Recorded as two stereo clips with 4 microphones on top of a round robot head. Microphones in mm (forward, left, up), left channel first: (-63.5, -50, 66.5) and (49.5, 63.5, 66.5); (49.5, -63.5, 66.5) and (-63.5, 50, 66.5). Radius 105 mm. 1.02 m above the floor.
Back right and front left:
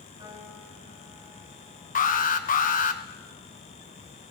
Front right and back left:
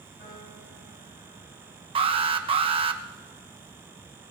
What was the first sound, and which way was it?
A piano, 20° right.